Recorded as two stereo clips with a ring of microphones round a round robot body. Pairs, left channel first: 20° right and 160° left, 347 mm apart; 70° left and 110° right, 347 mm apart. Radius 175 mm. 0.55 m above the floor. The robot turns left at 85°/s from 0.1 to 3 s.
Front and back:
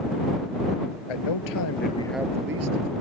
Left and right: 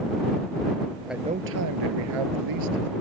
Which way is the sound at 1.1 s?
20° right.